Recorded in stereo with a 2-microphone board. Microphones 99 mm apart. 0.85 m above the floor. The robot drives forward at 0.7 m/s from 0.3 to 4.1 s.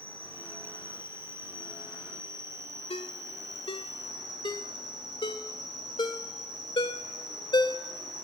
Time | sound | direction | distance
0.0 | an insect | 20° right (ahead or behind) | 5 m
2.9 | a ringtone | 75° left (ahead or behind) | 1.6 m